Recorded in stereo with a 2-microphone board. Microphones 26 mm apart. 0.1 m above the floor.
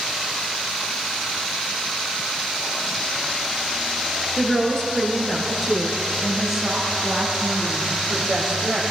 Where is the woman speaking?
20° left (ahead or behind), 2 m; by 8.8 s 25° right (ahead or behind), 3 m.